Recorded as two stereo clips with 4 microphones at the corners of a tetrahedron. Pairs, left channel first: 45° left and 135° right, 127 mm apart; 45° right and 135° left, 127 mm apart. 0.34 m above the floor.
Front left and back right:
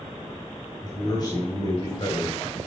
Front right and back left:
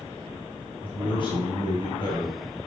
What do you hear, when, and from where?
0.8 s a man speaking: 5° right, 2 m